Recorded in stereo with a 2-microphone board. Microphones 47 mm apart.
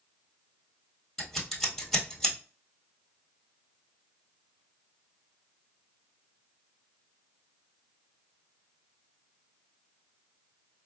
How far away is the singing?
I don't hear singing.